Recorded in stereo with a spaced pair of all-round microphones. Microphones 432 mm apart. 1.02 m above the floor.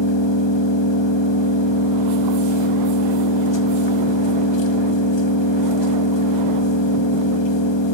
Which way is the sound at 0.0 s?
85° left.